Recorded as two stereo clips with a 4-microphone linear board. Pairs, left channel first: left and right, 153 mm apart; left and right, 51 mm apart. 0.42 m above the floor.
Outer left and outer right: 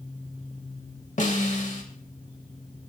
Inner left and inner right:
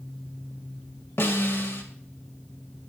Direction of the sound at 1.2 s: 55° left (ahead or behind).